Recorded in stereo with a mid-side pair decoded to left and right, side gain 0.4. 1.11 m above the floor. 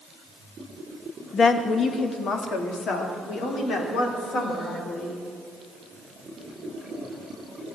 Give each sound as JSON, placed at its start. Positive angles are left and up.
{"t": 1.3, "sound": "a woman speaking", "azimuth_deg": 50, "distance_m": 1.4}